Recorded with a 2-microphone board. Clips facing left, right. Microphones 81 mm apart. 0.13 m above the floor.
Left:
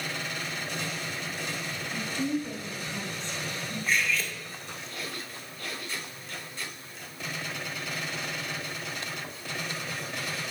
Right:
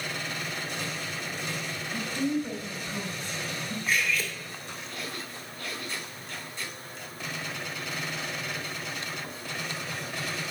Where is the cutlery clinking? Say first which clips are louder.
Even; 5° right (ahead or behind), 1.5 m.